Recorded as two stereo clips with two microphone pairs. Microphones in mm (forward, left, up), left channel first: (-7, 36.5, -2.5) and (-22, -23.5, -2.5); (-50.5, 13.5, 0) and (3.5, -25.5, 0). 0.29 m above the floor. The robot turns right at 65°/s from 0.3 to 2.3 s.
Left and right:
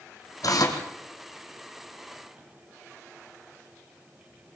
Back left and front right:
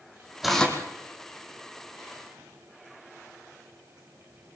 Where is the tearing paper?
50° left, 2.5 m; by 0.8 s 75° left, 2.5 m.